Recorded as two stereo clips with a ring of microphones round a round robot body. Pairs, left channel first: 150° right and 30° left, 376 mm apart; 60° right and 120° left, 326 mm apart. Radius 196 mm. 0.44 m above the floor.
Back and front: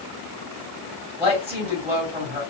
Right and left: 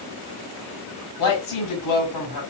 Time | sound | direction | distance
1.2 | a woman speaking | 55° right | 3 m